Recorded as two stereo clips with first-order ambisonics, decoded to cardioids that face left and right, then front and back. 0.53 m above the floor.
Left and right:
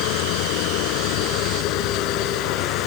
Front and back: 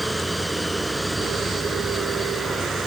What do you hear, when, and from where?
0.0 s running water: 100° left